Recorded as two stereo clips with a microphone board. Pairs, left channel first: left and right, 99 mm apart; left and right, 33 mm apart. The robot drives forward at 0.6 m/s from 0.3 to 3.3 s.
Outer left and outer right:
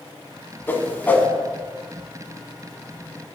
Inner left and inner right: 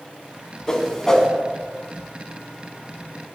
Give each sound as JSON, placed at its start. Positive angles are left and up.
{"t": 0.7, "sound": "a whoosh", "side_deg": 20, "distance_m": 0.8}